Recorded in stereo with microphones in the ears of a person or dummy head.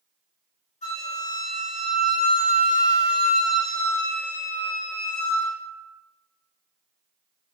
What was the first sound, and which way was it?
A flute, 45° left (ahead or behind).